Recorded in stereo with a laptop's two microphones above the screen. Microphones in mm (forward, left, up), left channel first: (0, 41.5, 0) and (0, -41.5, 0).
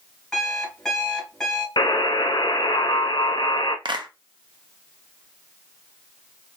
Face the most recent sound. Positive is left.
turn(degrees=-65)  # may be behind; listen again after turning